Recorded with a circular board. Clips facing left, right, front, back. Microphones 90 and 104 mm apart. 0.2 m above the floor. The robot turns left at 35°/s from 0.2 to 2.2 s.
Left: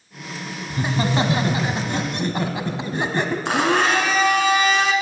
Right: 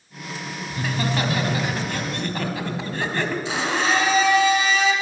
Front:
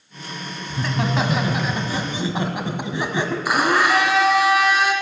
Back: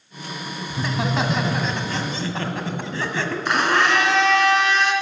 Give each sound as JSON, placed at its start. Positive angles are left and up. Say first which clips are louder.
{"t": 0.7, "sound": "laughter", "louder": "left 4 dB, front 1 dB", "azimuth_deg": 105, "distance_m": 1.2}
{"t": 3.5, "sound": "a blender", "louder": "left 6 dB, front 1 dB", "azimuth_deg": 80, "distance_m": 1.5}